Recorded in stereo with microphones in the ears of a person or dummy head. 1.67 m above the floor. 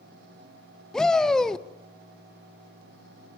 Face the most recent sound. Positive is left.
turn(degrees=5)  # may be behind; listen again after turning